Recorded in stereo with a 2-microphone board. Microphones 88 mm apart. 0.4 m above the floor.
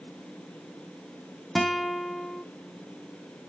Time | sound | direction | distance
1.6 | a guitar | centre (ahead or behind) | 1.1 m